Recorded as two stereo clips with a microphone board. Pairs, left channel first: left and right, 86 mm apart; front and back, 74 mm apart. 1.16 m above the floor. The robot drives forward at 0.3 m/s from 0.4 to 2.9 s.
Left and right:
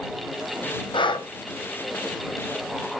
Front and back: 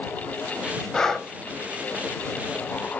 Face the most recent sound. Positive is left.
turn(degrees=130)